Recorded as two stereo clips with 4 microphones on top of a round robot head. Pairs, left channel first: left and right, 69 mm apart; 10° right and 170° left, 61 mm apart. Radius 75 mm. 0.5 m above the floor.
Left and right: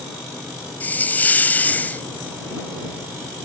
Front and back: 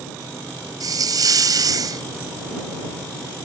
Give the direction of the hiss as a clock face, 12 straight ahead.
7 o'clock.